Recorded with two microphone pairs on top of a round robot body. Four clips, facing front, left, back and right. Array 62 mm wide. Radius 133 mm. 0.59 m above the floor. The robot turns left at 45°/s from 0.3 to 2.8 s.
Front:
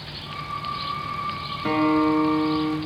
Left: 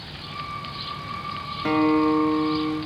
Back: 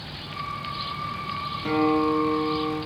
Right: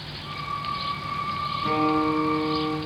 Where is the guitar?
55° left, 1.6 m; by 2.8 s 5° left, 1.6 m.